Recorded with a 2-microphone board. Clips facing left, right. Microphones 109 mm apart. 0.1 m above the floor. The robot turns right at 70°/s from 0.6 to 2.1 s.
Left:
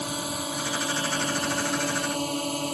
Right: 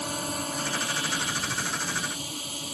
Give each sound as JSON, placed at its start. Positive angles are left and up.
{"t": 0.0, "sound": "a drone", "azimuth_deg": 5}